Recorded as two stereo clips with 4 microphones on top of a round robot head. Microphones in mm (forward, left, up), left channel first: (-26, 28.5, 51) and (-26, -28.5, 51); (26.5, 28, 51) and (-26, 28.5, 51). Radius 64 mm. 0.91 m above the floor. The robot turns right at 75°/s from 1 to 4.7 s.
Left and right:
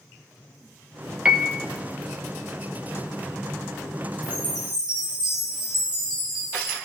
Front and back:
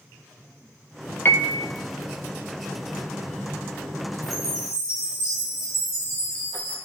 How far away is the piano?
About 0.9 m.